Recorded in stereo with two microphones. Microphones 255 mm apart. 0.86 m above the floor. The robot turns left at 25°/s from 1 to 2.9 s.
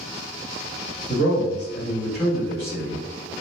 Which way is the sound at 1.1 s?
150° right.